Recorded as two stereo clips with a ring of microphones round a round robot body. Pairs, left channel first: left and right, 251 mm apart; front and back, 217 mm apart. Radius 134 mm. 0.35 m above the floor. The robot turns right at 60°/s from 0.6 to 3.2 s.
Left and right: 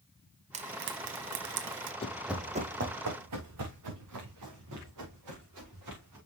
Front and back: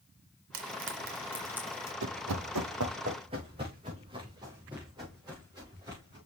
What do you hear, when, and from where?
0.5 s frying: 155° right, 1.1 m; by 1.9 s 75° right, 1.1 m
2.0 s running footsteps: 155° left, 0.7 m; by 6.2 s 105° right, 5.5 m